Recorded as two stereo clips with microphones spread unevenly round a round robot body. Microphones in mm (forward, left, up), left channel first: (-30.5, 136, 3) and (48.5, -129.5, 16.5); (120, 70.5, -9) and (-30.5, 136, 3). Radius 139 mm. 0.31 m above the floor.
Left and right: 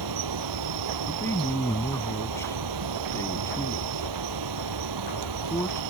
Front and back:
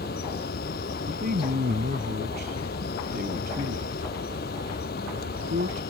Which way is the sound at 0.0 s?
75° right.